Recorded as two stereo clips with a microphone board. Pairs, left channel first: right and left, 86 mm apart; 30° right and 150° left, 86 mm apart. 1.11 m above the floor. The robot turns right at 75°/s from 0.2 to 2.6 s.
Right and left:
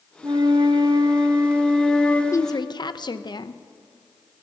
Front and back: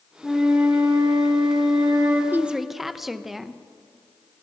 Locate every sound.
0.2 s a flute: 55° left, 1.6 m; by 2.2 s 155° right, 1.6 m
2.3 s a woman speaking: 145° right, 0.6 m; by 3.6 s 125° right, 0.6 m